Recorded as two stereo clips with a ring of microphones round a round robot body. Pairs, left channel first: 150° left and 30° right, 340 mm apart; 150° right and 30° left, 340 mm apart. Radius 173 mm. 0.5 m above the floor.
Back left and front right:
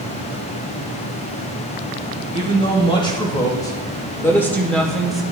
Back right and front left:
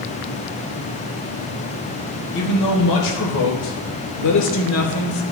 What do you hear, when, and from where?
2.3 s a man speaking: 135° right, 3 m; by 5.2 s 120° right, 1.6 m